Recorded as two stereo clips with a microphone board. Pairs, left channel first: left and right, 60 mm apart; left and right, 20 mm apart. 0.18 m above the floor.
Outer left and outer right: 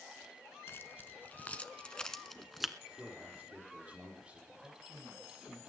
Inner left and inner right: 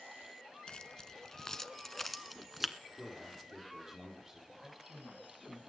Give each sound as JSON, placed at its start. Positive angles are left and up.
{"t": 0.7, "sound": "keys jangling", "side_deg": 40, "distance_m": 1.5}
{"t": 3.0, "sound": "a man speaking", "side_deg": -25, "distance_m": 7.0}
{"t": 4.6, "sound": "a man speaking", "side_deg": -50, "distance_m": 9.5}